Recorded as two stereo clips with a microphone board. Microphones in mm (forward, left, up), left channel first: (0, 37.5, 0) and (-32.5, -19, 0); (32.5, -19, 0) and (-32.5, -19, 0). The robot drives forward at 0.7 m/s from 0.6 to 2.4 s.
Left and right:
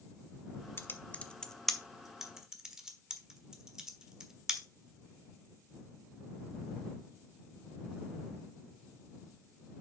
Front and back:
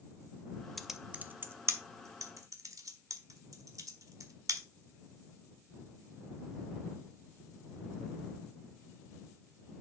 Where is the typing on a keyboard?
85° left, 0.6 m; by 4.7 s 160° left, 1.3 m.